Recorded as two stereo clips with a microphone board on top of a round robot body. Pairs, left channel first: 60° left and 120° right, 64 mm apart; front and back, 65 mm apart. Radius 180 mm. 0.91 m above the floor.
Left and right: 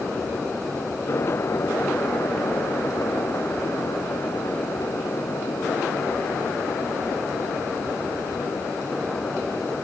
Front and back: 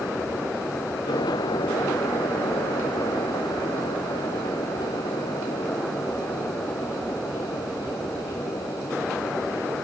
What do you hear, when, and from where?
Only background noise.